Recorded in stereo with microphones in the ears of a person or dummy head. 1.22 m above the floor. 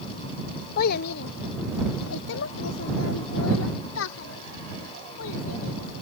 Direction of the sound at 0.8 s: 50° left (ahead or behind).